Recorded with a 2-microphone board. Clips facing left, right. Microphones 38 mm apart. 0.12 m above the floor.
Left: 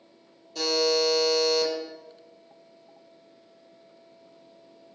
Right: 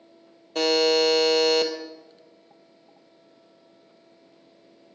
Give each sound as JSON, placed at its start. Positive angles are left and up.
{"t": 0.6, "sound": "a buzzer", "side_deg": -55, "distance_m": 0.9}